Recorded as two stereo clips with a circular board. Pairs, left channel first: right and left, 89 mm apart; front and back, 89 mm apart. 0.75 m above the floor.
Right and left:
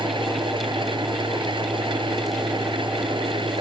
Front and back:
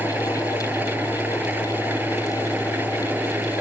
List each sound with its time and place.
0.0 s an engine running: 110° left